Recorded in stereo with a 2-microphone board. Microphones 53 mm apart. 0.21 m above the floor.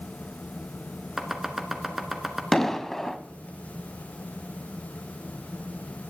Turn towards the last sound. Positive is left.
turn(degrees=5)  # may be behind; listen again after turning